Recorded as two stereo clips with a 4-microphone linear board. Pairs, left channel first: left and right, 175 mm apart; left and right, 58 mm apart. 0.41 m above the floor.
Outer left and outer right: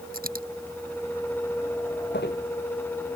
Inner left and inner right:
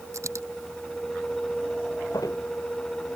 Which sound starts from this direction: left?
Footsteps, at 2.1 s.